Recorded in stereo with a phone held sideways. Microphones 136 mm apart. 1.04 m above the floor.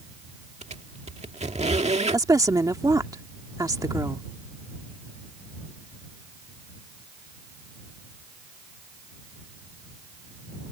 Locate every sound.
0.6 s a squeak: 55° right (ahead or behind)
2.1 s a woman speaking: 25° right (ahead or behind)